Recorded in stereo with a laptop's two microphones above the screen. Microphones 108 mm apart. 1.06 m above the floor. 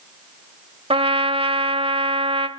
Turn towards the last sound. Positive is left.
turn(degrees=-60)  # may be behind; listen again after turning